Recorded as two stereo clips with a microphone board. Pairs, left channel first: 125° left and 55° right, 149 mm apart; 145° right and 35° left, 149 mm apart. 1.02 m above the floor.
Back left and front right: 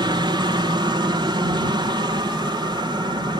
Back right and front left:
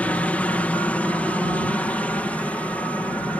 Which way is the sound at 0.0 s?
75° right.